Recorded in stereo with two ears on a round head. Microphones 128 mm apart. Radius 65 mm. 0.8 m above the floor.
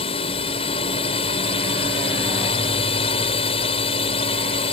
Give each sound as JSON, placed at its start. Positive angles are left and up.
{"t": 0.0, "sound": "a drone", "side_deg": 40}